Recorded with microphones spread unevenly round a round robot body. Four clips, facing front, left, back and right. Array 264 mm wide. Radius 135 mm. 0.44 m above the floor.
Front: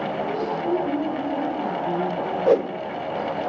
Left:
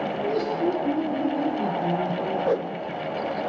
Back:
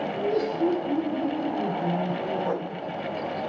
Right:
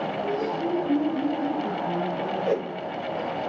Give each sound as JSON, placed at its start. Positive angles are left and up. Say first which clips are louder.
{"t": 0.2, "sound": "laughter", "louder": "left 3 dB, back 1 dB", "azimuth_deg": 110, "distance_m": 7.5}
{"t": 2.5, "sound": "a whoosh", "louder": "left 1 dB, front 10 dB", "azimuth_deg": 0, "distance_m": 0.6}